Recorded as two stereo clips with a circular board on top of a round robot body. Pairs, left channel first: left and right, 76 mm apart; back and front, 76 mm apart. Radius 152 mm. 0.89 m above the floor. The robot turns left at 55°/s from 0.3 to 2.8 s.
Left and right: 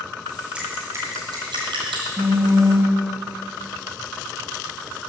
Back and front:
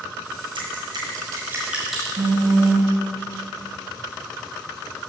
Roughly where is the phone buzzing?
Ahead.